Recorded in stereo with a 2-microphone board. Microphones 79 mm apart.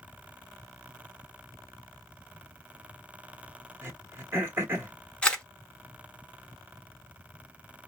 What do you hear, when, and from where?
3.8 s throat clearing: 30° right (ahead or behind), 1.2 m
5.2 s a camera shutter: 15° left (ahead or behind), 0.6 m